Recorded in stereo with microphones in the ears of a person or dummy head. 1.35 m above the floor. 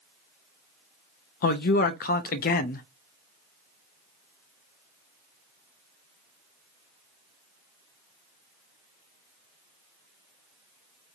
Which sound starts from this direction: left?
A man speaking, at 1.4 s.